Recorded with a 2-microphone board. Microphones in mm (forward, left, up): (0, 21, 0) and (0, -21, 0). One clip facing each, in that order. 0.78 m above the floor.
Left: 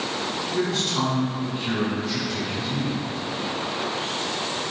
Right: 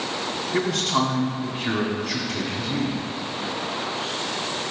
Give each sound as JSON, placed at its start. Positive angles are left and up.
{"t": 0.5, "sound": "a man speaking", "side_deg": -65, "distance_m": 1.8}